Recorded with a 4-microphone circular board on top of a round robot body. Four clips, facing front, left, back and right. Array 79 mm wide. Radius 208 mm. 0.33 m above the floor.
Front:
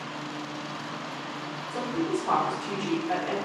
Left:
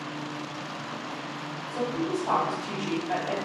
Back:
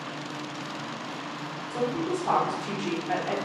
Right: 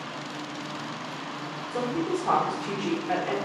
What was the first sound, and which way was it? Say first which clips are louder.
A woman speaking: right 1 dB, back 1 dB; 120° right.